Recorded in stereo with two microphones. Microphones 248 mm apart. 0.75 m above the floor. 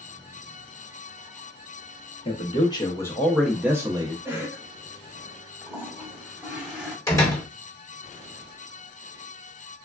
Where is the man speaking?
25° left (ahead or behind), 0.9 m; by 4.2 s 20° right (ahead or behind), 0.7 m.